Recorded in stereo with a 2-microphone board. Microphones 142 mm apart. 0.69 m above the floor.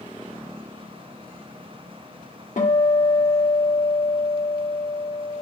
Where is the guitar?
60° left (ahead or behind), 2.5 m.